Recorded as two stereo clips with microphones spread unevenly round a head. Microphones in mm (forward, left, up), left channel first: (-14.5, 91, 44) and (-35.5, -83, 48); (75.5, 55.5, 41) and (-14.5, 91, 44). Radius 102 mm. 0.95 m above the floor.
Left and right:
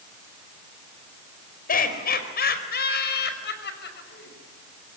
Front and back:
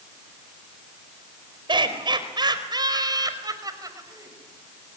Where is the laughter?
120° left, 4.5 m; by 4.3 s 105° left, 5.5 m.